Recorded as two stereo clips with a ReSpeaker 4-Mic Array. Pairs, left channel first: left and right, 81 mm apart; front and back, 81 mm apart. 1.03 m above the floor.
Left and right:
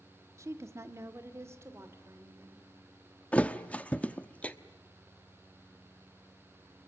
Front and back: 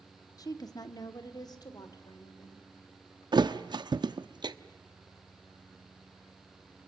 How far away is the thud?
About 0.9 m.